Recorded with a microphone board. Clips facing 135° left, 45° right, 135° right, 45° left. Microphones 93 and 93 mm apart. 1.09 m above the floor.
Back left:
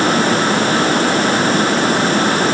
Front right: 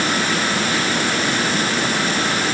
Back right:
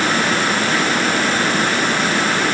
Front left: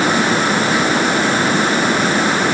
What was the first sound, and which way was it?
Only background noise.